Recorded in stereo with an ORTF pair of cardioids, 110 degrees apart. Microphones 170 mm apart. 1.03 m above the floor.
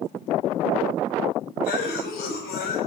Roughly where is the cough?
Left.